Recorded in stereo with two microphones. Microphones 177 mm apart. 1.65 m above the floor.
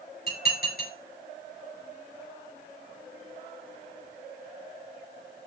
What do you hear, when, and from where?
0.3 s dishes clattering: 60° left (ahead or behind), 5.5 m